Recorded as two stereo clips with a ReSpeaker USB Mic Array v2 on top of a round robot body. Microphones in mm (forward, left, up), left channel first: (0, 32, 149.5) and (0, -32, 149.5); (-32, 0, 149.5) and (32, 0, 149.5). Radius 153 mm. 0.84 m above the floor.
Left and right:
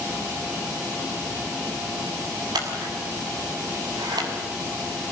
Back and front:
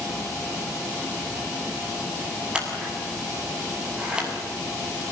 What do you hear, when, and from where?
2.5 s scissors: 75° right, 7 m